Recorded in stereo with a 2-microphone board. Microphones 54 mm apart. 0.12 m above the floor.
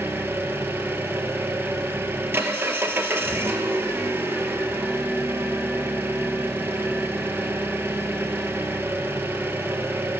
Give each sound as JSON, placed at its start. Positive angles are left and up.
{"t": 0.0, "sound": "an engine running", "side_deg": -40, "distance_m": 1.5}